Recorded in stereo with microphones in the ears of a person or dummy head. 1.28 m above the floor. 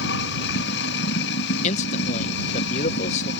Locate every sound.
0.0 s running water: 70° left (ahead or behind)
1.6 s a man speaking: 45° left (ahead or behind)